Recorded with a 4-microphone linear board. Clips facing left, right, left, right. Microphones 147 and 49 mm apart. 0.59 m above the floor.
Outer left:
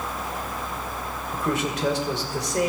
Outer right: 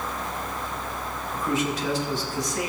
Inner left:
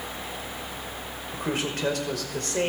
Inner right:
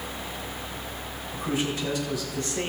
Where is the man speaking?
65° left (ahead or behind), 2 m.